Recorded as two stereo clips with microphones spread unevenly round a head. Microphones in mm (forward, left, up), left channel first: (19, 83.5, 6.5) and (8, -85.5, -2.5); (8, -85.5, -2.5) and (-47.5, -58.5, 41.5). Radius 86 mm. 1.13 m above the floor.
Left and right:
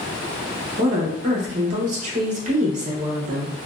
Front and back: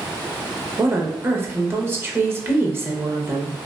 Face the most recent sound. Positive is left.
turn(degrees=-145)